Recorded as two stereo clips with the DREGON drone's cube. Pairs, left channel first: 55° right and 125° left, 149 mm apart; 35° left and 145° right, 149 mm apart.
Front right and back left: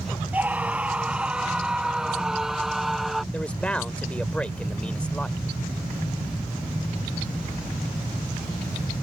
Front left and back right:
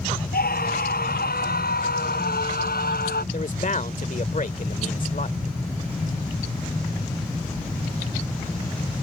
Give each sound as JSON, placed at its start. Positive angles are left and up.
{"t": 0.3, "sound": "a scream", "azimuth_deg": 45}
{"t": 3.3, "sound": "a man speaking", "azimuth_deg": 25}